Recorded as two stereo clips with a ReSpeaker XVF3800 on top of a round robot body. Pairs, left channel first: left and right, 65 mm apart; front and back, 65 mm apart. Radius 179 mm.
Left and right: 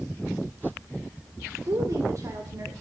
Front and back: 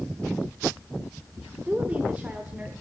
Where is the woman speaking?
115° right, 1.8 m.